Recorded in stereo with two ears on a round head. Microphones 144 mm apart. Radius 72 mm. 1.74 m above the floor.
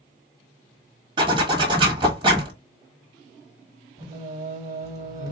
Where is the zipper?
30° right (ahead or behind), 1.4 m.